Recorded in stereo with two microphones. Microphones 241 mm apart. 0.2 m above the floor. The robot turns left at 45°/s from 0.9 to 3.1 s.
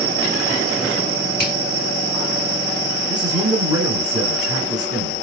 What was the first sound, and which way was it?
A finger snap, 40° left (ahead or behind).